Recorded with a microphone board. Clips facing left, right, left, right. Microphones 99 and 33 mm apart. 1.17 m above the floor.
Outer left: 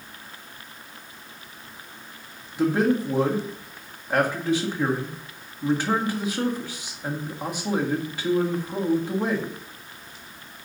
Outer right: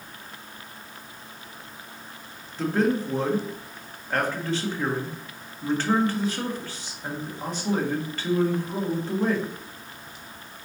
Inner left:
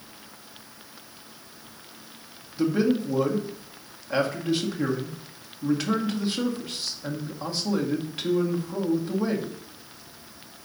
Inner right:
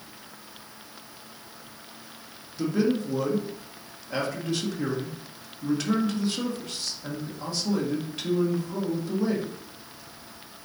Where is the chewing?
I don't hear chewing.